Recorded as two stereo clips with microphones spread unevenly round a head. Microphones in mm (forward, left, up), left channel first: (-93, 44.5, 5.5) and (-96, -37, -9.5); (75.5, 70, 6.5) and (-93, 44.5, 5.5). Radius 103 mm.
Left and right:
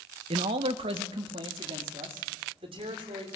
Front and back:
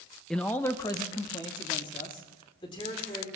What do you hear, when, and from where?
0.3 s a man speaking: 80° right, 0.6 m; by 3.3 s 60° right, 4 m